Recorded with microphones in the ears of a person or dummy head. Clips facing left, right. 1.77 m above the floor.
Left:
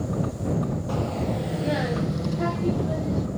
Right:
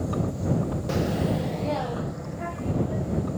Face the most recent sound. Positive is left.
turn(degrees=75)  # may be behind; listen again after turning